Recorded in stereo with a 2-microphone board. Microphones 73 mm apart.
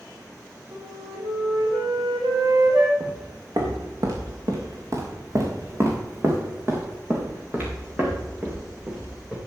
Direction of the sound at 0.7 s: 80° right.